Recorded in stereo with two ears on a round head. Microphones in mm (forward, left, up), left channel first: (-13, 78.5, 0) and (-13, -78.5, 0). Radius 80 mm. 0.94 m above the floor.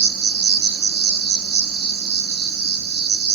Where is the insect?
55° right (ahead or behind), 0.9 m.